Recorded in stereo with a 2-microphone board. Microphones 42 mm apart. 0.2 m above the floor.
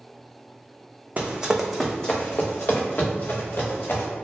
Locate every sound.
1.2 s running footsteps: 35° right (ahead or behind), 0.5 m; by 4.1 s 60° left (ahead or behind), 1.5 m